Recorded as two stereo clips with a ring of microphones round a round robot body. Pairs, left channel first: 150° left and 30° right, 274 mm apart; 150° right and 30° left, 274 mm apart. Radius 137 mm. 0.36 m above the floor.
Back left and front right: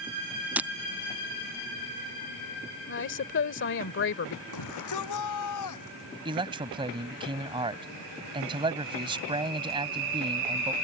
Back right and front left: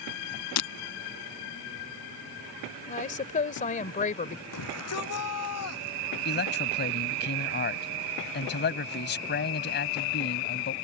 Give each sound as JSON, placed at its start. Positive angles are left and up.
{"t": 0.6, "sound": "breaking glass", "azimuth_deg": -115}
{"t": 2.9, "sound": "a woman speaking", "azimuth_deg": 160}
{"t": 4.5, "sound": "a shout", "azimuth_deg": 175}
{"t": 6.2, "sound": "a man speaking", "azimuth_deg": -100}